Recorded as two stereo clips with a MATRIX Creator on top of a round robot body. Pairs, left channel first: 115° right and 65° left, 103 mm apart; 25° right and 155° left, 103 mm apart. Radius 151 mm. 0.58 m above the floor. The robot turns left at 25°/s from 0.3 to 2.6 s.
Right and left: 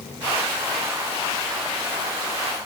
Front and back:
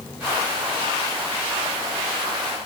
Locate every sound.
Only background noise.